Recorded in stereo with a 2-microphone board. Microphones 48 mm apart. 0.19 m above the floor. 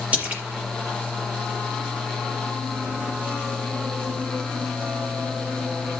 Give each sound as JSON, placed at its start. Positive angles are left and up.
{"t": 0.1, "sound": "a splash", "side_deg": -30, "distance_m": 5.0}